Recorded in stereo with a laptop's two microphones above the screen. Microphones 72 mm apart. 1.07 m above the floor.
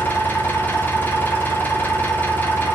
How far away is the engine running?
About 2.5 m.